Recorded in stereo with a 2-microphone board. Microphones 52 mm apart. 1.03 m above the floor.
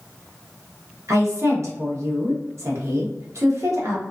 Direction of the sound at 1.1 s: 60° right (ahead or behind).